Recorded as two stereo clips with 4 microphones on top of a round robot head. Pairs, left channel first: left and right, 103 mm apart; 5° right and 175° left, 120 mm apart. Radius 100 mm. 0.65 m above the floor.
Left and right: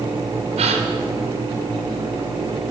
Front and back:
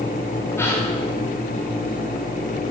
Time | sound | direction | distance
0.6 | a gasp | 75° right | 2.5 m